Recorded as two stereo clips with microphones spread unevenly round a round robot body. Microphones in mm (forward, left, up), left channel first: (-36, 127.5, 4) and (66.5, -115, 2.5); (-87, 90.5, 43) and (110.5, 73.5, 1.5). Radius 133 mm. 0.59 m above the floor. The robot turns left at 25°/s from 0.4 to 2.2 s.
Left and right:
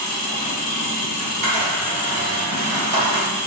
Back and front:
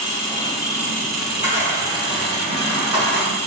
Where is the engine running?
105° left, 0.8 m; by 3.5 s 60° left, 0.8 m.